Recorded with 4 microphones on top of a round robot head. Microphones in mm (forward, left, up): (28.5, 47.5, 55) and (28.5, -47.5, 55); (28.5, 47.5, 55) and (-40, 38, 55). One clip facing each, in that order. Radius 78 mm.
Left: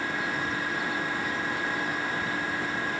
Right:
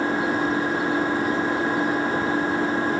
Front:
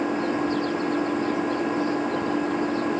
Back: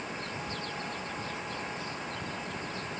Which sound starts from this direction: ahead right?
An engine running, at 0.0 s.